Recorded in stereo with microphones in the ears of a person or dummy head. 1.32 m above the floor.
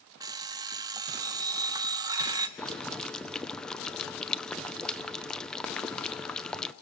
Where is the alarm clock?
20° right (ahead or behind), 0.7 m.